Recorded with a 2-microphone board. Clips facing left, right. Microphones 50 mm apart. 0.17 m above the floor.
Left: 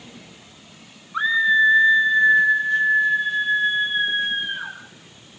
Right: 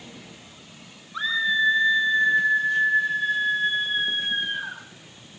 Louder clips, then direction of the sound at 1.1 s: Left 6 dB; 30° left (ahead or behind).